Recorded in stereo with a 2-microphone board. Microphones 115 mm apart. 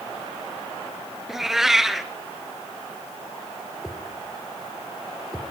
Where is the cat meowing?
5° right (ahead or behind), 1.3 m.